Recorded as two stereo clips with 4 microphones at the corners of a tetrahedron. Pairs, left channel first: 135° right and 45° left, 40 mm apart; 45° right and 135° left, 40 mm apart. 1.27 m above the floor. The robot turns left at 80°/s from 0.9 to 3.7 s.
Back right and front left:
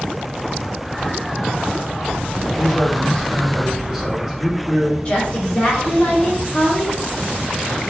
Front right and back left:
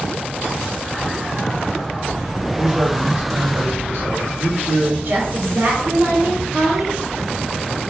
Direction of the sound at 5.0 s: 170° left.